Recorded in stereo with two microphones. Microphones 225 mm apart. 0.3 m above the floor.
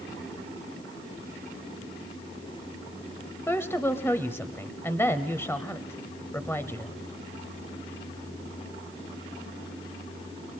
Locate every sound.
3.5 s a woman speaking: 10° left (ahead or behind), 1.1 m